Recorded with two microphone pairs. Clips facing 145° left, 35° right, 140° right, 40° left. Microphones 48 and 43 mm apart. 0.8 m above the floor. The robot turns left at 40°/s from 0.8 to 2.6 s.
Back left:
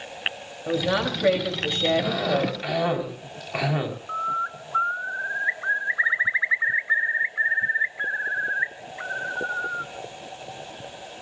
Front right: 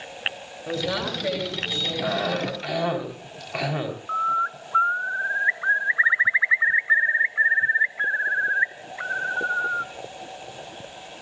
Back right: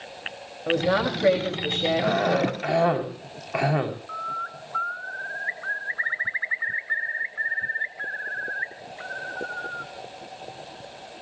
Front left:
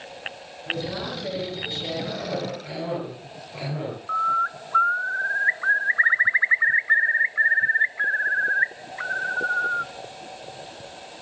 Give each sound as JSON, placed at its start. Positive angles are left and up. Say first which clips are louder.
{"t": 0.7, "sound": "a woman speaking", "louder": "back left 3 dB, back right 7 dB", "azimuth_deg": -140, "distance_m": 3.5}
{"t": 2.0, "sound": "a cough", "louder": "back left 1 dB, back right 7 dB", "azimuth_deg": -105, "distance_m": 4.5}
{"t": 4.1, "sound": "a bird", "louder": "front right 4 dB, front left 8 dB", "azimuth_deg": 20, "distance_m": 0.5}